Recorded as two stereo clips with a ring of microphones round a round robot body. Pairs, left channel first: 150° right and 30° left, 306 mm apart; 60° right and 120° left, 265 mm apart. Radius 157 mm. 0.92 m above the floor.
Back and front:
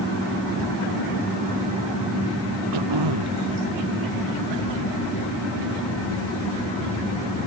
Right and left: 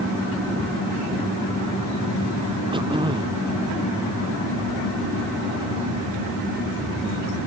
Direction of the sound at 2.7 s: 50° left.